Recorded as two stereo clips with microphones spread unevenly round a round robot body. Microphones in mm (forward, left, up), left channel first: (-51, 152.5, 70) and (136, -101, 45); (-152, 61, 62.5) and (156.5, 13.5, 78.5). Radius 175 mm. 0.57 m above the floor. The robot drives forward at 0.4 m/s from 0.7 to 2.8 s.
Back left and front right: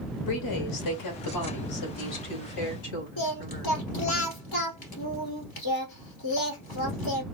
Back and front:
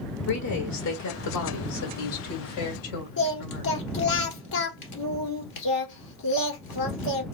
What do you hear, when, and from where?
0.3 s a woman speaking: 145° left, 1.7 m; by 3.8 s 160° left, 2.5 m
3.2 s singing: 160° left, 1.6 m